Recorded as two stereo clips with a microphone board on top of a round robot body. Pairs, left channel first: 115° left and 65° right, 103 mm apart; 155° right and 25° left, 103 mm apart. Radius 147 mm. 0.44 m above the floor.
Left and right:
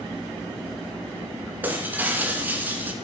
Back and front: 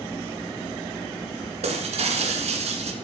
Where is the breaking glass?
5° left, 2 m.